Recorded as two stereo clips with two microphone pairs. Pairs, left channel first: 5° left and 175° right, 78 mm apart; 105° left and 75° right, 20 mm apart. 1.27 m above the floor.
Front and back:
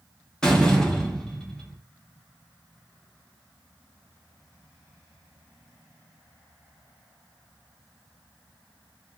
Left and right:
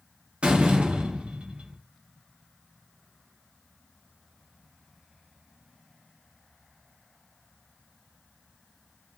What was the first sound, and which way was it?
A door slam, 70° right.